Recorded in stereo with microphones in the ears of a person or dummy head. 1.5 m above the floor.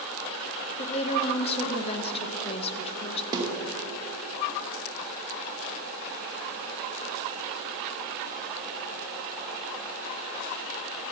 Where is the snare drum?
15° right (ahead or behind), 2.5 m.